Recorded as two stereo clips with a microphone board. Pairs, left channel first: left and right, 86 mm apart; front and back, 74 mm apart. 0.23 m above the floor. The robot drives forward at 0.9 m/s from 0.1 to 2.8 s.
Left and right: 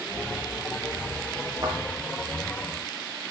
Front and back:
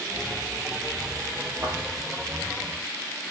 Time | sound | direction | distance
1.6 | a thud | 130° right | 3.5 m